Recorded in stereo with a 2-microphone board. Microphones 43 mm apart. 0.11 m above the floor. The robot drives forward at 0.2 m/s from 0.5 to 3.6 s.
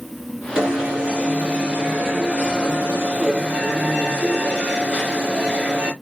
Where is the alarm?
20° right (ahead or behind), 2 m.